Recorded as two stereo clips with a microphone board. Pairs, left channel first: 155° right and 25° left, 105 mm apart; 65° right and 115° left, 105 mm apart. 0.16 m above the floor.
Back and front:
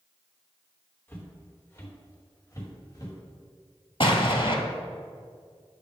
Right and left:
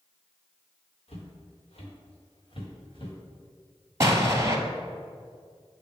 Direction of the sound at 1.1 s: 90° right.